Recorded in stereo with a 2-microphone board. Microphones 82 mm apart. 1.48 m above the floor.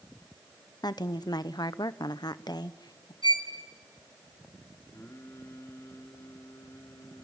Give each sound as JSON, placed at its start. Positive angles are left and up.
{"t": 0.8, "sound": "a woman speaking", "side_deg": 55, "distance_m": 0.8}
{"t": 3.2, "sound": "a violin", "side_deg": 75, "distance_m": 6.0}
{"t": 4.9, "sound": "singing", "side_deg": 30, "distance_m": 2.5}